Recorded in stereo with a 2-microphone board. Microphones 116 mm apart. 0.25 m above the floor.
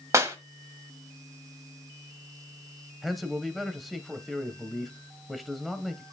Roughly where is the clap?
Right.